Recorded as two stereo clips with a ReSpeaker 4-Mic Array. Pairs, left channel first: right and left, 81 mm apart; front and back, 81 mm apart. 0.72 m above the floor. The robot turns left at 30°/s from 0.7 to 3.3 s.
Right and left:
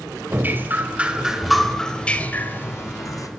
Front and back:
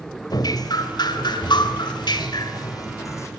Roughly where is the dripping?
Ahead left.